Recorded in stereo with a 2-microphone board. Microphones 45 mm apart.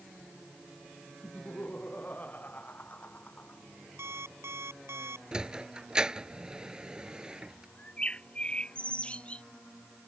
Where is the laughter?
35° left (ahead or behind).